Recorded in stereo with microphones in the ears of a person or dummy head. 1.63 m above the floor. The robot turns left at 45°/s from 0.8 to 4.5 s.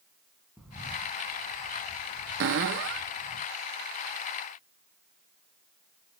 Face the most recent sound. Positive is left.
turn(degrees=-170)